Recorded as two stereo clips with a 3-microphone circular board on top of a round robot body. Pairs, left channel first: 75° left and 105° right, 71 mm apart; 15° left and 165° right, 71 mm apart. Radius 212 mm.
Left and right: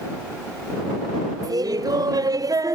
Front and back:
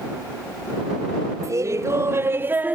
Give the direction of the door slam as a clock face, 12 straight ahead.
I don't hear a door slam.